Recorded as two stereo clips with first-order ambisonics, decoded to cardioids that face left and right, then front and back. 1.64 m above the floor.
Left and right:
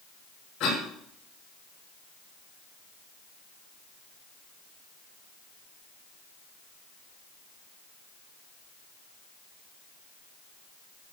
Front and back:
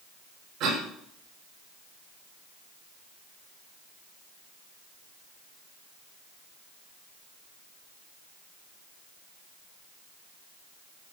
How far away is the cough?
About 9.5 m.